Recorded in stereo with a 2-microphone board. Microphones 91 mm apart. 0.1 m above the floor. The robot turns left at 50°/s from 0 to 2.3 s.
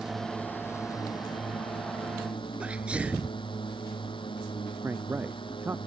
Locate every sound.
0.0 s a drone: 5° right (ahead or behind); by 5.9 s 65° left (ahead or behind)
2.6 s a sneeze: 15° right (ahead or behind)
4.8 s a man speaking: 20° right (ahead or behind)